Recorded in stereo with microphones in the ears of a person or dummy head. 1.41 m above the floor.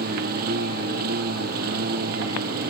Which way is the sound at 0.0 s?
55° right (ahead or behind).